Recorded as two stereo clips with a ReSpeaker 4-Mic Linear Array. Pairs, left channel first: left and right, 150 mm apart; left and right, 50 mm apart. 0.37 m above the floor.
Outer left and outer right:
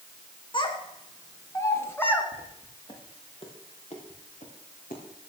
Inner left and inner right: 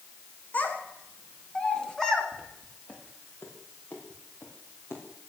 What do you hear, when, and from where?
0.5 s a child speaking: 35° left (ahead or behind), 2 m; by 2.2 s 10° left (ahead or behind), 1.9 m
2.3 s footsteps: 20° left (ahead or behind), 4.5 m; by 5.3 s 65° left (ahead or behind), 4.5 m